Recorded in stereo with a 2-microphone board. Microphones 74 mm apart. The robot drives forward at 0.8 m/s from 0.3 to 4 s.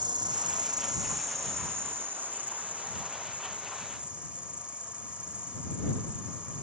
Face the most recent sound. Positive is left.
turn(degrees=-15)  # may be behind; listen again after turning